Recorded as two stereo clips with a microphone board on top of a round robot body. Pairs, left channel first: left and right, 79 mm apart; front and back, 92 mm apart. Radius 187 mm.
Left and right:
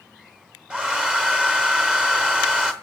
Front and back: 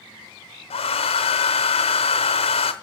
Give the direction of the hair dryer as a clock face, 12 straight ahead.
12 o'clock.